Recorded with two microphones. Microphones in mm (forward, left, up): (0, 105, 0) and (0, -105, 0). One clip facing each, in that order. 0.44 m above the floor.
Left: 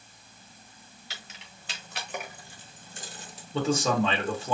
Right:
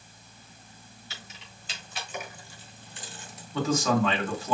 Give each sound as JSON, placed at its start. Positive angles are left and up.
{"t": 1.1, "sound": "keys jangling", "side_deg": 70, "distance_m": 1.7}
{"t": 3.5, "sound": "a man speaking", "side_deg": 30, "distance_m": 1.6}